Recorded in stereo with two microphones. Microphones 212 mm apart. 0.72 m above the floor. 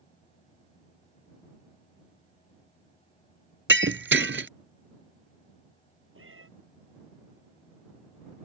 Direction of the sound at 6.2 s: 70° right (ahead or behind).